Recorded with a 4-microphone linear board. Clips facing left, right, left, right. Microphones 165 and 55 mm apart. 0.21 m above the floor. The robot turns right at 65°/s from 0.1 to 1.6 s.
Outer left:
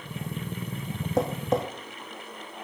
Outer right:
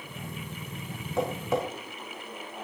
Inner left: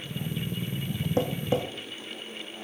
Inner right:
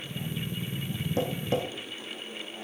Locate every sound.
1.2 s tapping: 40° left (ahead or behind), 2.5 m; by 1.6 s 10° left (ahead or behind), 2.5 m